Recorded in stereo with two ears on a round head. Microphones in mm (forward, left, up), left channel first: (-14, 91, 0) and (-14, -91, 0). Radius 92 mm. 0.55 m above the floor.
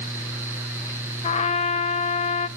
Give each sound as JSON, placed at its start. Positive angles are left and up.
{"t": 1.2, "sound": "a trumpet", "side_deg": 30, "distance_m": 0.5}